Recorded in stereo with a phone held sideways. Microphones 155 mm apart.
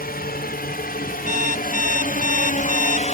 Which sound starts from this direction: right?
An alarm clock, at 1.3 s.